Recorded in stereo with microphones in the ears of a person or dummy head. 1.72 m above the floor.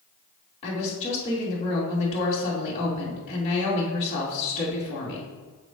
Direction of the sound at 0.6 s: 35° left (ahead or behind).